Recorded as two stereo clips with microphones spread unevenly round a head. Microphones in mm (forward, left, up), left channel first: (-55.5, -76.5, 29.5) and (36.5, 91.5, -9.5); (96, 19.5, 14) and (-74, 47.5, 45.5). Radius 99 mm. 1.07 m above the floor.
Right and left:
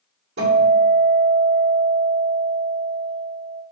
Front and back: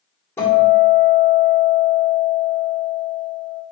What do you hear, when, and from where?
0.4 s a guitar: 65° left, 2.5 m